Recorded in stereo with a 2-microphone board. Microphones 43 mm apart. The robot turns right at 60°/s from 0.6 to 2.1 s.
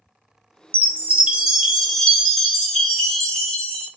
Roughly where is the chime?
Right.